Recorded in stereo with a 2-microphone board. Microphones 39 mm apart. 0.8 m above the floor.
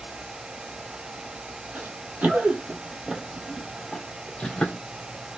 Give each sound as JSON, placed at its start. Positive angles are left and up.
{"t": 1.8, "sound": "running footsteps", "side_deg": -50, "distance_m": 1.2}